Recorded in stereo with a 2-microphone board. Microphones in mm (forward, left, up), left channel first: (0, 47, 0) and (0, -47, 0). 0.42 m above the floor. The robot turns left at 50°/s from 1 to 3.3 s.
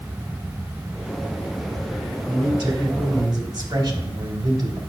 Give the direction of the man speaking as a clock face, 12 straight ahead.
2 o'clock.